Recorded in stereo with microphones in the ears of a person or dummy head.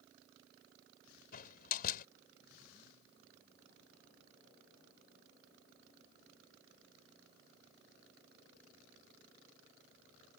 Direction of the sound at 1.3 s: 55° left (ahead or behind).